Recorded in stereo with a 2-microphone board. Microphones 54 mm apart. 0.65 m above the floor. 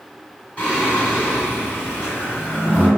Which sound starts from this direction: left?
Singing, at 0.6 s.